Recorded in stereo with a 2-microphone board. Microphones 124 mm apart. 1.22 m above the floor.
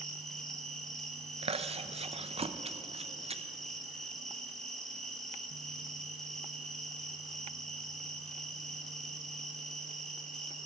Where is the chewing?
55° right (ahead or behind), 0.5 m.